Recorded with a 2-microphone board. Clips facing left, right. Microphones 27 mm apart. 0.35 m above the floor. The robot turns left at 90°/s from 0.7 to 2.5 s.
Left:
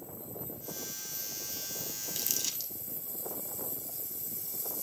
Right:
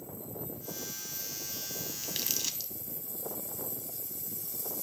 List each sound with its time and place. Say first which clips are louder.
2.0 s crumpling: right 1 dB; 45° right (ahead or behind), 0.9 m; by 2.7 s 5° right (ahead or behind), 0.9 m